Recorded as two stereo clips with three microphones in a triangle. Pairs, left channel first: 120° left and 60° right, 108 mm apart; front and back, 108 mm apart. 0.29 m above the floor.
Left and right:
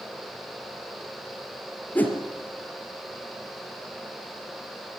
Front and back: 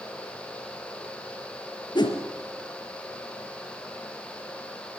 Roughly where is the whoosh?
Ahead left.